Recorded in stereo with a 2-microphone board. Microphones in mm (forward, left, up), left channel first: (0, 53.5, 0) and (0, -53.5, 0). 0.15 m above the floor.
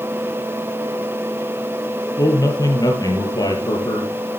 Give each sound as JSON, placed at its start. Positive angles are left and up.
{"t": 2.2, "sound": "a man speaking", "side_deg": 35, "distance_m": 4.5}